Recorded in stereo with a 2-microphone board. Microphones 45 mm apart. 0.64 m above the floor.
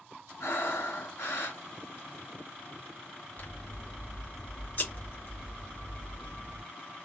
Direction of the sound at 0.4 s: 85° left.